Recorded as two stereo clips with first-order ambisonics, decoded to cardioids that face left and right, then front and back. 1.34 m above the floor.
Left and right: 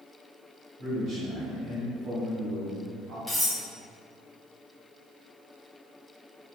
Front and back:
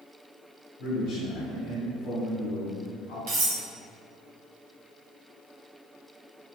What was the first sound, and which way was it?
A man speaking, 25° right.